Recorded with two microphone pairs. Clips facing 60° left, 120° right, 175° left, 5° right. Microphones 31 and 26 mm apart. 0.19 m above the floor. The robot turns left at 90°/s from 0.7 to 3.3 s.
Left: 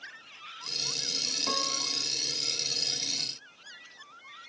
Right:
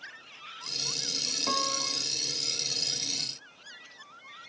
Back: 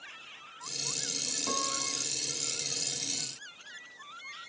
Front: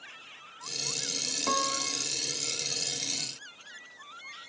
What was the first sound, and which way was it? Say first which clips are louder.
A piano: right 4 dB, front 5 dB; 35° right.